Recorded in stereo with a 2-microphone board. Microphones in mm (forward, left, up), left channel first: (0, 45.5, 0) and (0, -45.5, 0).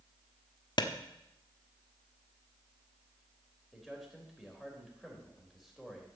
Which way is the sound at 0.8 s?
55° left (ahead or behind).